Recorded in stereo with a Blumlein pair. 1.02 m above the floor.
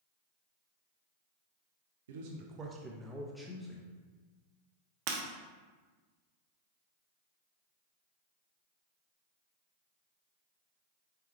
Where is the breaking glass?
45° right, 0.8 m.